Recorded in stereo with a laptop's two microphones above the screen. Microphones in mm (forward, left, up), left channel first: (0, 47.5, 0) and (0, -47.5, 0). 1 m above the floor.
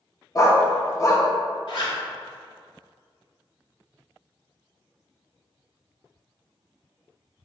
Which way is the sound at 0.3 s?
35° left (ahead or behind).